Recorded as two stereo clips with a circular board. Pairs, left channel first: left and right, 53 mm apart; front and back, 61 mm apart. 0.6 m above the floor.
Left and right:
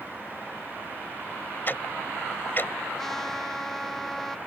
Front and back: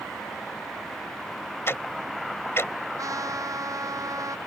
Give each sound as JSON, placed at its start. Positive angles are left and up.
{"t": 1.7, "sound": "ticking", "azimuth_deg": 40}
{"t": 3.0, "sound": "a trumpet", "azimuth_deg": 170}